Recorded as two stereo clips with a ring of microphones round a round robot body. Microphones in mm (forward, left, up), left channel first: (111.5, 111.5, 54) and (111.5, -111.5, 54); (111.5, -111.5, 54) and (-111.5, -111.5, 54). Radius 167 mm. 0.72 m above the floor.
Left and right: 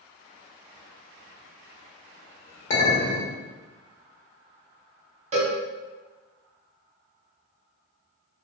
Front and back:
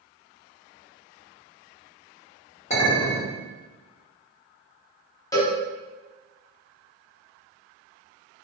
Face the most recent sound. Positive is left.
turn(degrees=-60)